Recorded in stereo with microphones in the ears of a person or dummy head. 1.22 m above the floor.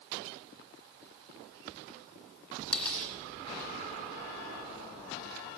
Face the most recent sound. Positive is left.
turn(degrees=10)  # may be behind; listen again after turning